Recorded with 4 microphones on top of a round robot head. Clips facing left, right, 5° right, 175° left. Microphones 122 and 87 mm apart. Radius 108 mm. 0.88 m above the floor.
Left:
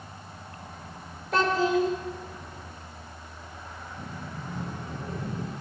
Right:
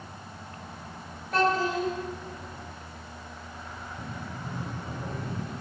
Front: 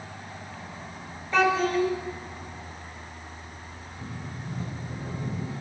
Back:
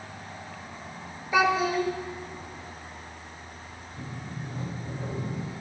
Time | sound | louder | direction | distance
1.3 | a child speaking | left 2 dB, front 1 dB | 95° left | 1.9 m
4.0 | a sliding door | even, back 1 dB | 165° right | 5.5 m